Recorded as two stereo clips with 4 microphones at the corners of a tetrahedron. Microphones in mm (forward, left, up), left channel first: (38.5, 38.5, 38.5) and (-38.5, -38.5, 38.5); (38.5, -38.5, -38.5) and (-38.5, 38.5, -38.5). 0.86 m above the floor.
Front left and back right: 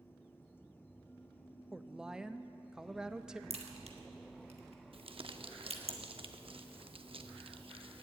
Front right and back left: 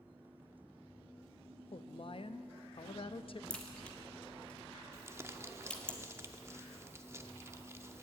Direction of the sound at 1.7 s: 50° right.